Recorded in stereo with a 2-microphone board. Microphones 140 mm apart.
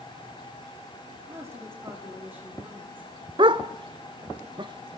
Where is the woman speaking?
20° right (ahead or behind), 9.5 m; by 3.2 s 10° right (ahead or behind), 10.5 m.